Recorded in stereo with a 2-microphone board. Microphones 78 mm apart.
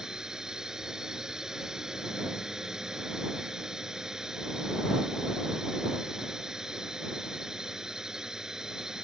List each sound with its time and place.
0.0 s a drone: 5° right (ahead or behind)